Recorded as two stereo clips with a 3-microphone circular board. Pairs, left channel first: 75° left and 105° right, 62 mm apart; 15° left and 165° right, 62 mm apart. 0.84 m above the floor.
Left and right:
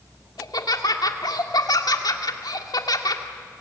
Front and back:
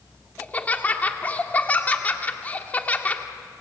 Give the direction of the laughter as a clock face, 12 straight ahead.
9 o'clock.